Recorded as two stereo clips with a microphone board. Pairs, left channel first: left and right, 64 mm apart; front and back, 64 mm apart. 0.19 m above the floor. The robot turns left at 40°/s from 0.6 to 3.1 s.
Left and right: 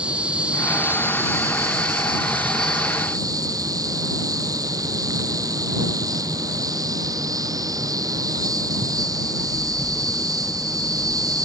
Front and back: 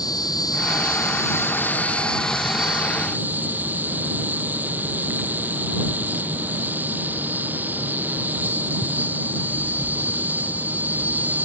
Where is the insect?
15° right; by 11.4 s 115° right.